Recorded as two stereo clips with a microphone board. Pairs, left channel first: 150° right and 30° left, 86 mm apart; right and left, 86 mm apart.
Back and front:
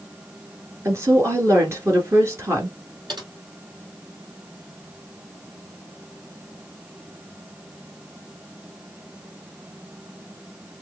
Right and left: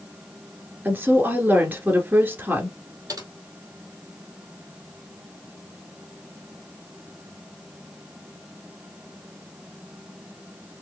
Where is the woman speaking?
40° left, 1.5 m.